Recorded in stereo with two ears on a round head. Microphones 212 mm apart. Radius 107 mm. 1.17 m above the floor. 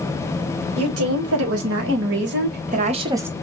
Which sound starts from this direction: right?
A woman speaking, at 0.8 s.